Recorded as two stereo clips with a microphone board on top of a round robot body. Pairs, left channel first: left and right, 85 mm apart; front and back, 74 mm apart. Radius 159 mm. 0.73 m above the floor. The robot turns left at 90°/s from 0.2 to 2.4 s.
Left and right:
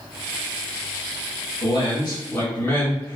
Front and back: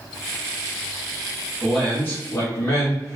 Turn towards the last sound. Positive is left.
turn(degrees=30)